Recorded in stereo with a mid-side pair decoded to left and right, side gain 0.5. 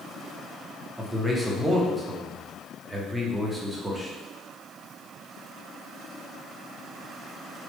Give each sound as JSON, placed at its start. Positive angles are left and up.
{"t": 1.0, "sound": "a man speaking", "azimuth_deg": -15, "distance_m": 1.0}